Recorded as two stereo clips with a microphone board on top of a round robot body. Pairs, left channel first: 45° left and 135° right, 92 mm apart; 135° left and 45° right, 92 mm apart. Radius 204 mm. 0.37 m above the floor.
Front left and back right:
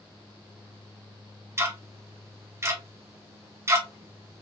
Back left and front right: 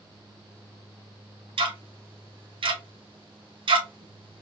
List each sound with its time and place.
1.6 s ticking: 75° right, 1.0 m